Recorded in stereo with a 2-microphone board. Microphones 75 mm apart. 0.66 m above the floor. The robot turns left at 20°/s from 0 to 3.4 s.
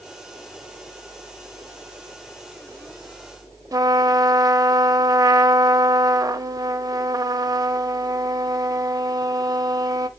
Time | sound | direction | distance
3.7 | a trumpet | 50° right (ahead or behind) | 0.5 m